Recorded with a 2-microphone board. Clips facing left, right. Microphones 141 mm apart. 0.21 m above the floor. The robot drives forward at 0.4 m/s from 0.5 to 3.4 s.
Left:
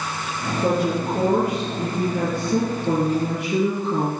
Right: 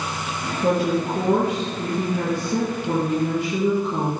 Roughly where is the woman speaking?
Left.